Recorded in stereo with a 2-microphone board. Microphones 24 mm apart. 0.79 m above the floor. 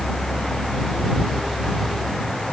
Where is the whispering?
I don't hear whispering.